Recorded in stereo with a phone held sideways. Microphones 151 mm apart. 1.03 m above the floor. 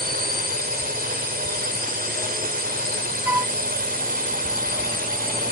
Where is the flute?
15° right (ahead or behind).